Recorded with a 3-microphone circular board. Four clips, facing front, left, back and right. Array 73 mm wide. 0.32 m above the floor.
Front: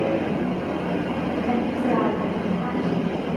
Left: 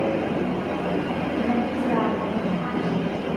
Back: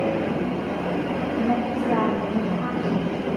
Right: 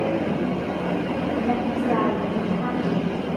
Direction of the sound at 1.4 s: 60° right.